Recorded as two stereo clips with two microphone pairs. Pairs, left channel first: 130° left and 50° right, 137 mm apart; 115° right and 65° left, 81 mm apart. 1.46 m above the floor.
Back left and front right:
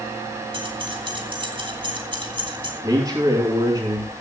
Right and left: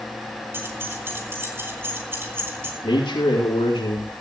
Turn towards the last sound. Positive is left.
turn(degrees=-110)